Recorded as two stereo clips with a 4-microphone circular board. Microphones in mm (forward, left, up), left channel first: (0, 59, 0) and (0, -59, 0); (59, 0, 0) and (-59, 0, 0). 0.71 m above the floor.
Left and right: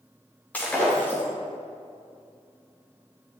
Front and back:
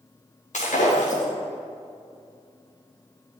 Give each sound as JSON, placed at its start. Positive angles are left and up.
{"t": 0.5, "sound": "breaking glass", "azimuth_deg": 10, "distance_m": 5.5}